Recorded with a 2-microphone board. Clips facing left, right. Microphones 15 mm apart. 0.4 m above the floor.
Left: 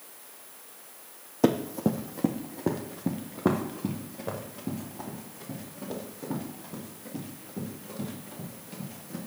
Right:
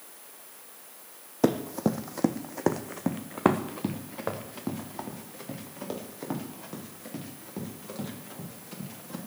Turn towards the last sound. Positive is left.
turn(degrees=-70)  # may be behind; listen again after turning